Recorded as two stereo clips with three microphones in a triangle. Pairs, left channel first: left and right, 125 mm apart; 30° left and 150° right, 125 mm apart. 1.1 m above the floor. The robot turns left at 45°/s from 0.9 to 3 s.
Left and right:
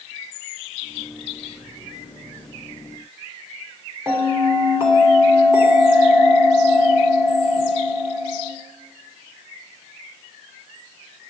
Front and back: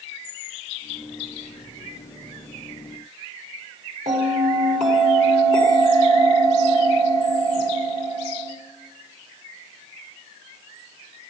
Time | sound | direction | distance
4.1 | a bell | 160° right | 3 m